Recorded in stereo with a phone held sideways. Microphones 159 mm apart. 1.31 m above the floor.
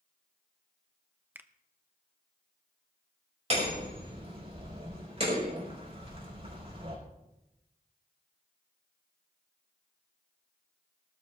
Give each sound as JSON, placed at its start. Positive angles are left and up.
{"t": 1.4, "sound": "a finger snap", "side_deg": -10, "distance_m": 0.7}
{"t": 3.5, "sound": "hammering", "side_deg": -40, "distance_m": 5.0}